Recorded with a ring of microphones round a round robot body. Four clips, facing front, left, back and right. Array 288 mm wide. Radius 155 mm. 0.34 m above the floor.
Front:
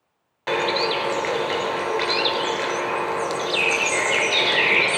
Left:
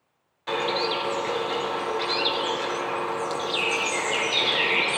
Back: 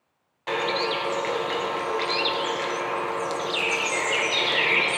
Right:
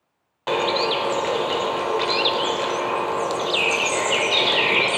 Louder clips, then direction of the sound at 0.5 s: Right 5 dB, front 3 dB; 60° right.